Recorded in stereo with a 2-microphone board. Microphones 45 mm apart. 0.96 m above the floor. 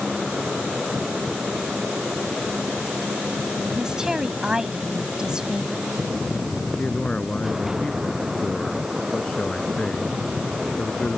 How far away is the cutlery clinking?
No cutlery clinking in this recording.